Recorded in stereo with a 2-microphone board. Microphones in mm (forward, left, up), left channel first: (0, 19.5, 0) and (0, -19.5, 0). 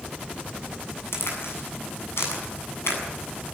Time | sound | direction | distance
1.1 | a crack | 85° left | 7.5 m